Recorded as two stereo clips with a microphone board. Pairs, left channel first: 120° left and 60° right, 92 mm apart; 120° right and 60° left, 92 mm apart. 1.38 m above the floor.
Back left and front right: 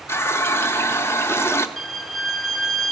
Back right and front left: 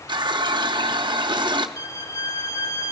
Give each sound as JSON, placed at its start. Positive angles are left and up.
{"t": 0.1, "sound": "a running tap", "azimuth_deg": 65, "distance_m": 0.5}
{"t": 1.8, "sound": "a violin", "azimuth_deg": -150, "distance_m": 0.7}